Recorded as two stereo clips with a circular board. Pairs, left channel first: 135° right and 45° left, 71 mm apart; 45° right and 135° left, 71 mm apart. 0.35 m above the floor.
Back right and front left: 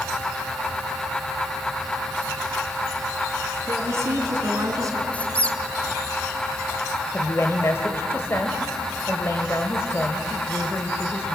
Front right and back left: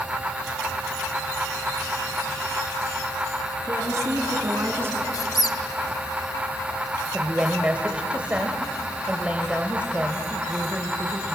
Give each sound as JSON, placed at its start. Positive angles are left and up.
{"t": 3.7, "sound": "a woman speaking", "azimuth_deg": 95, "distance_m": 4.5}
{"t": 5.1, "sound": "a squeak", "azimuth_deg": -65, "distance_m": 1.1}
{"t": 7.1, "sound": "a woman speaking", "azimuth_deg": -160, "distance_m": 1.4}